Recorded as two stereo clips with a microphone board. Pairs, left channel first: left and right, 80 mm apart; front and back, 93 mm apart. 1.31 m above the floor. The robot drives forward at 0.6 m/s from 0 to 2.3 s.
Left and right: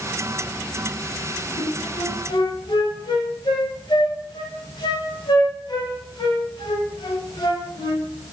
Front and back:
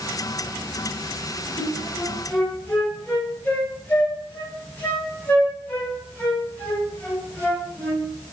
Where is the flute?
50° left, 1.3 m; by 8.0 s 70° left, 1.1 m.